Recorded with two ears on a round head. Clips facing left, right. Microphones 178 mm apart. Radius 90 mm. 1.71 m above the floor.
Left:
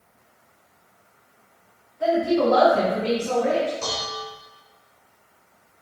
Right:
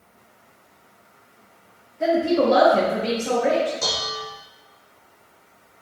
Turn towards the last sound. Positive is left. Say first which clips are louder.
# right 1 dB
turn(degrees=-25)  # may be behind; listen again after turning